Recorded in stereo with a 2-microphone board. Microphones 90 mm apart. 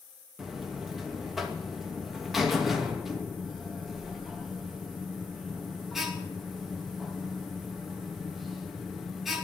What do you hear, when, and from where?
0.4 s a buzzer: centre (ahead or behind), 2.5 m